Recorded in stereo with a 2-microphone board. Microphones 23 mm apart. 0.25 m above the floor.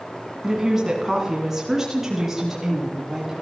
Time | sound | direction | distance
0.4 | a woman speaking | 20° right (ahead or behind) | 2 m